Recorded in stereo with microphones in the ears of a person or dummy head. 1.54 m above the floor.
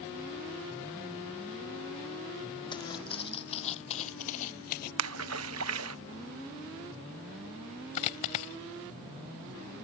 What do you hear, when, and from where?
2.7 s footsteps: 20° left (ahead or behind); by 4.9 s 40° left (ahead or behind)
5.0 s a splash: 80° right
8.0 s a dropped coin: 30° left (ahead or behind)